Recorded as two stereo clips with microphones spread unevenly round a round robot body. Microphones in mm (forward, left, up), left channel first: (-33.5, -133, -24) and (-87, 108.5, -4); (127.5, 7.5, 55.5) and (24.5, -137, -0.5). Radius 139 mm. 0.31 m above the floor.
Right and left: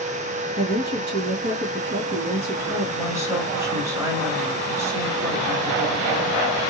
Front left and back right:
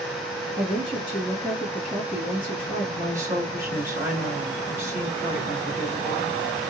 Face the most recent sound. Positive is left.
turn(degrees=-175)